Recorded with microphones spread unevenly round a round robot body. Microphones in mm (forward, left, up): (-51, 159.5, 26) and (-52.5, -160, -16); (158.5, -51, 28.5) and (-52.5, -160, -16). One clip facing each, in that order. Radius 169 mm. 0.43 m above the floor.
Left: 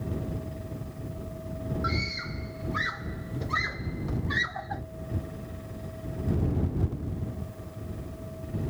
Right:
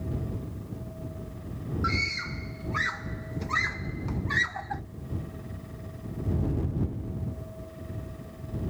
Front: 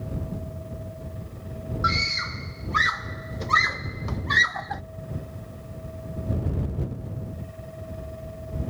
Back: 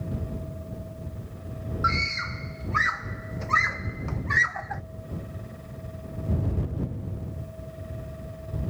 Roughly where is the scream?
Ahead.